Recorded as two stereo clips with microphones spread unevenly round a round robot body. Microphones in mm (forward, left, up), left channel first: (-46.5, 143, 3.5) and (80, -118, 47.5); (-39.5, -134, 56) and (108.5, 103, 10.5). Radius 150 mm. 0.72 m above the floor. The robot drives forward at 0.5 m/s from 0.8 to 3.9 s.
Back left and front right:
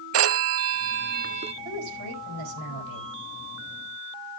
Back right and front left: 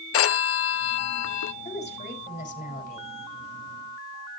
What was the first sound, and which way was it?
A phone ringing, 95° right.